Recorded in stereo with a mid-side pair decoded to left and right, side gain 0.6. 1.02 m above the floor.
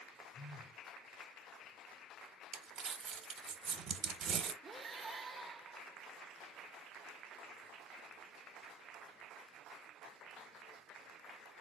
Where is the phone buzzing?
5° left, 0.6 m.